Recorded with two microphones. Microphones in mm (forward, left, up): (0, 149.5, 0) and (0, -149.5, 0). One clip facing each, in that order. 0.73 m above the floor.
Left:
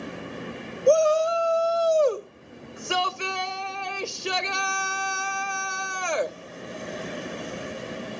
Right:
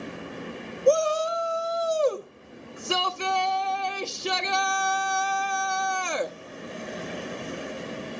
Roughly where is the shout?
Right.